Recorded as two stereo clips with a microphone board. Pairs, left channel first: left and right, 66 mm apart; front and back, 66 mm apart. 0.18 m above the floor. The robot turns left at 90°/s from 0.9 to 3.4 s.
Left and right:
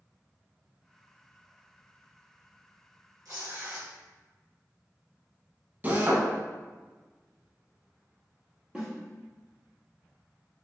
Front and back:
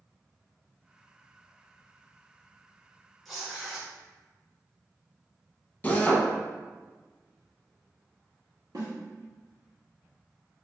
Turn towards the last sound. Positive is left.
turn(degrees=-160)